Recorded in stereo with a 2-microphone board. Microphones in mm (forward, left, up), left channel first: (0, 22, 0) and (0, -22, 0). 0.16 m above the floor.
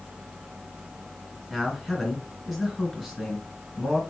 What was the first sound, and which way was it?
A man speaking, centre (ahead or behind).